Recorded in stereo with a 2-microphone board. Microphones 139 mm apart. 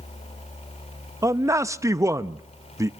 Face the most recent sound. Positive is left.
turn(degrees=-20)  # may be behind; listen again after turning